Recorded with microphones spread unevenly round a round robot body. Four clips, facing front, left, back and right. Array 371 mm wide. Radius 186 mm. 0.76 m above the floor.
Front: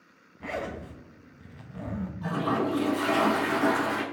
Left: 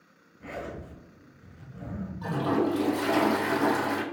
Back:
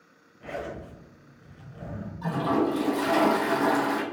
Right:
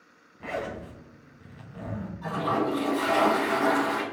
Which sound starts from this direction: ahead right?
A zipper, at 0.4 s.